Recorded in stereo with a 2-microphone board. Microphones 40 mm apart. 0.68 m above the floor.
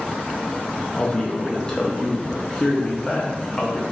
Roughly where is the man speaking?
Centre.